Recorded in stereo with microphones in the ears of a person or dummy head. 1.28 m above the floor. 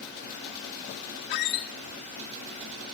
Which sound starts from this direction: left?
A squeak, at 1.3 s.